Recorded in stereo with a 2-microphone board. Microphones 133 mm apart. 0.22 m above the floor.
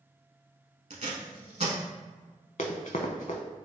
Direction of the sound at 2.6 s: 55° left (ahead or behind).